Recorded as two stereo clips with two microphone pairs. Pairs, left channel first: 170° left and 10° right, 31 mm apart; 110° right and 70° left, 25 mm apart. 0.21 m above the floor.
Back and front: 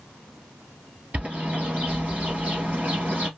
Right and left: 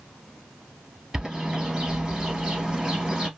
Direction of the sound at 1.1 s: 20° left.